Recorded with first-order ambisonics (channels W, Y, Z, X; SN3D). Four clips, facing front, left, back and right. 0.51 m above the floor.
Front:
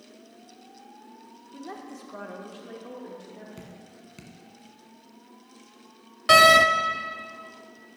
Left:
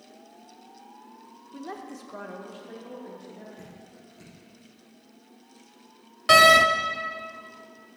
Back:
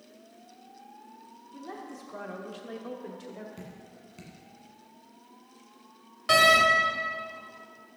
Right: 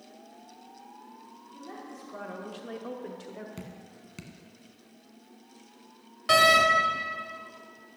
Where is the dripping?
75° right, 1.4 m.